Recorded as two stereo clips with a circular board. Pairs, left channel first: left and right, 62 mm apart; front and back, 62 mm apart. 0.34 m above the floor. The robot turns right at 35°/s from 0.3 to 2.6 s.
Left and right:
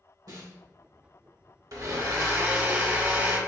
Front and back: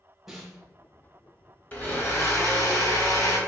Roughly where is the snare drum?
Right.